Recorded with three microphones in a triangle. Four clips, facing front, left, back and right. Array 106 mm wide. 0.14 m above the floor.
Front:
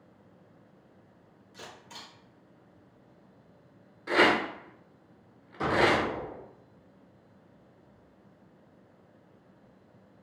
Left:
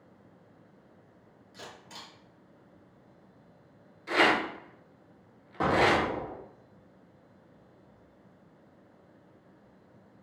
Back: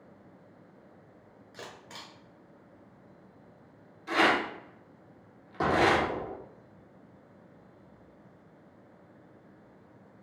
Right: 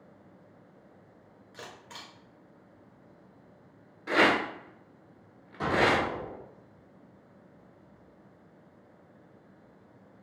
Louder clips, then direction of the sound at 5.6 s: Left 1 dB, back 1 dB; 135° left.